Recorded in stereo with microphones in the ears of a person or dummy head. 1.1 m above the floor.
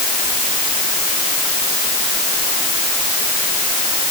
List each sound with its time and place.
Only background noise.